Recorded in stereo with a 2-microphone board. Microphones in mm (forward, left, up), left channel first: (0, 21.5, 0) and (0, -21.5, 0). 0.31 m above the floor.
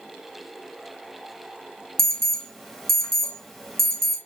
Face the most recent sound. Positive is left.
turn(degrees=10)  # may be behind; listen again after turning